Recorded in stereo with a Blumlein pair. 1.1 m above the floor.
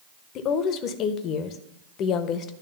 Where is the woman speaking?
35° left, 0.8 m.